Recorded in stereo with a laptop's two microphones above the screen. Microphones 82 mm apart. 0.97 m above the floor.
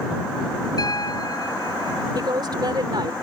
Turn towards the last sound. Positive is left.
turn(degrees=-60)  # may be behind; listen again after turning